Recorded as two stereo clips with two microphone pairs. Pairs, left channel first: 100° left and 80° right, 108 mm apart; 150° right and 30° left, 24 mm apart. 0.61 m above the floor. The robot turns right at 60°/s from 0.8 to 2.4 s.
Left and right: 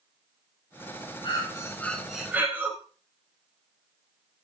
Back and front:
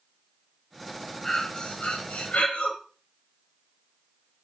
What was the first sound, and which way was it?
Breathing, 140° left.